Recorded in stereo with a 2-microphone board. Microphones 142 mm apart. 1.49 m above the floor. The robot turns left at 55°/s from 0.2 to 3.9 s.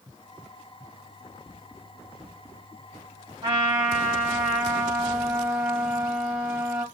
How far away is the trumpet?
About 1.5 m.